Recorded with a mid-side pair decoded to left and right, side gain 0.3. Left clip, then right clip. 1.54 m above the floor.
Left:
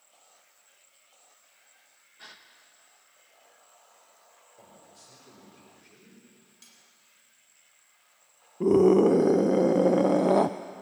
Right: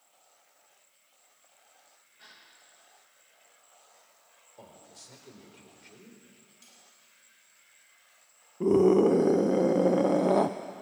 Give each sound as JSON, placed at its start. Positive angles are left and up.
{"t": 2.2, "sound": "a gasp", "azimuth_deg": 70, "distance_m": 1.6}
{"t": 4.6, "sound": "a man speaking", "azimuth_deg": -55, "distance_m": 4.5}
{"t": 6.6, "sound": "cutlery clinking", "azimuth_deg": 40, "distance_m": 4.0}
{"t": 8.6, "sound": "a scream", "azimuth_deg": 25, "distance_m": 0.6}